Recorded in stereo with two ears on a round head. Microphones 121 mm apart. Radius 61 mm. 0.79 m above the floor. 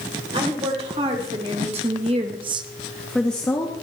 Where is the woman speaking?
45° right (ahead or behind), 3 m; by 3.7 s 20° left (ahead or behind), 1.2 m.